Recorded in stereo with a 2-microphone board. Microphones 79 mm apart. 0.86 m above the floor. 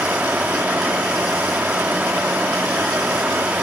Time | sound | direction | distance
0.0 | running water | 20° right (ahead or behind) | 0.8 m